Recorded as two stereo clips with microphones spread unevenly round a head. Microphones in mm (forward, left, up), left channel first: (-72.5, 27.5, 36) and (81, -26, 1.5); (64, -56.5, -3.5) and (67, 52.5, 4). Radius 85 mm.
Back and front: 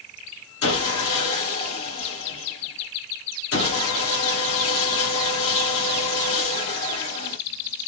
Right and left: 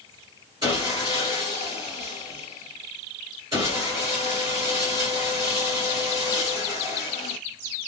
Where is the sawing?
160° left, 1.9 m.